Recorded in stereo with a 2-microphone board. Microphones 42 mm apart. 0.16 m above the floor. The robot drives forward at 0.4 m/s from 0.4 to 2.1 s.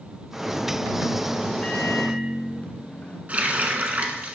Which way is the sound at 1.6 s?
40° left (ahead or behind).